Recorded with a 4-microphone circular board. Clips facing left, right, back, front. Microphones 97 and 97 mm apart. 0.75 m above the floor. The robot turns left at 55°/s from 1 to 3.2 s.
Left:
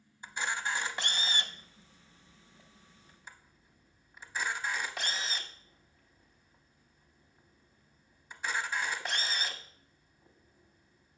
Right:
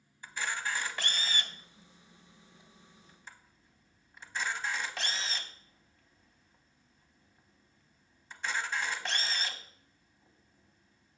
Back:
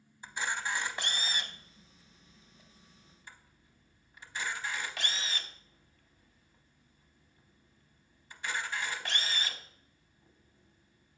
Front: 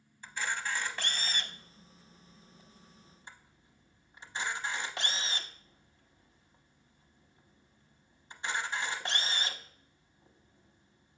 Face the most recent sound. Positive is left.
turn(degrees=10)